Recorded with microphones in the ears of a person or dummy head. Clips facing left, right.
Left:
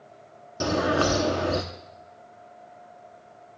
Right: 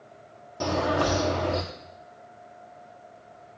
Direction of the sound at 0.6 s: 15° left (ahead or behind).